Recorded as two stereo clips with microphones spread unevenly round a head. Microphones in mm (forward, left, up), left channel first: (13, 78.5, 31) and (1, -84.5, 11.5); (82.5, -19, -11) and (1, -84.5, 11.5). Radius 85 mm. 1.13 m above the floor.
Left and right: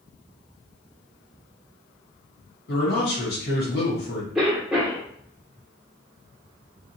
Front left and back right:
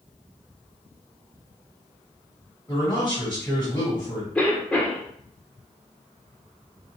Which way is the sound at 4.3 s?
20° right.